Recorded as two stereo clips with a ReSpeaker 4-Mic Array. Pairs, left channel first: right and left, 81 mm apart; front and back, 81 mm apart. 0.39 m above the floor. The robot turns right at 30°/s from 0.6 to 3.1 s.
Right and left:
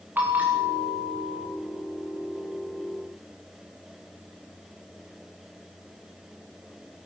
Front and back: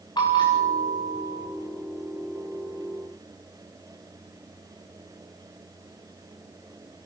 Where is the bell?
25° left, 6.5 m; by 1.5 s 50° left, 6.5 m.